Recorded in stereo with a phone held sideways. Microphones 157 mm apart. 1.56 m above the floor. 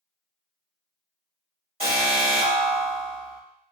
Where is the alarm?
35° right (ahead or behind), 2 m.